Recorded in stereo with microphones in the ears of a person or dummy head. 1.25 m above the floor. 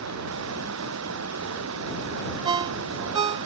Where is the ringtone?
25° right (ahead or behind).